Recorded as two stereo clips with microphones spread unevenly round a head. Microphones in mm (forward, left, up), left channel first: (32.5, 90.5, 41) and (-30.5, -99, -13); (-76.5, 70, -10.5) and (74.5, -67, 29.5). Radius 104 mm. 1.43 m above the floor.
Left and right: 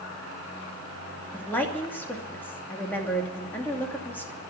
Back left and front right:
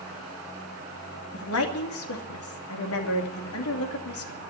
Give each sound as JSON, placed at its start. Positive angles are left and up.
{"t": 1.3, "sound": "a woman speaking", "azimuth_deg": 150, "distance_m": 2.5}